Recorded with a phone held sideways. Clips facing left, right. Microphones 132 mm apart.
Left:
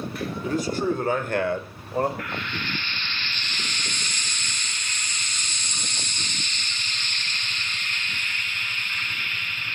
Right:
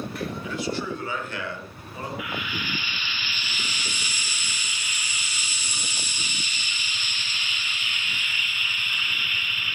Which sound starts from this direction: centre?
Frying, at 2.2 s.